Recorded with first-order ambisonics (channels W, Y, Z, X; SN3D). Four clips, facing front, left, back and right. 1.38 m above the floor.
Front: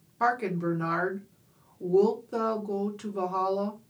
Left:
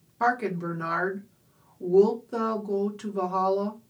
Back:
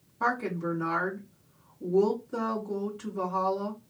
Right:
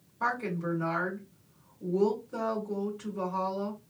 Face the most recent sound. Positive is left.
turn(degrees=50)